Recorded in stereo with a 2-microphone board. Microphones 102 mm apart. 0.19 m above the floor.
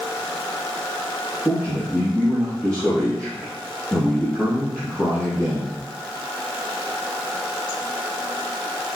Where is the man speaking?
10° left (ahead or behind), 4 m.